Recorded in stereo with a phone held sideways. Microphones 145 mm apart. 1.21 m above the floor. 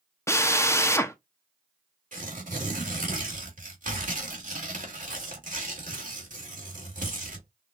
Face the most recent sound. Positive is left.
turn(degrees=-65)  # may be behind; listen again after turning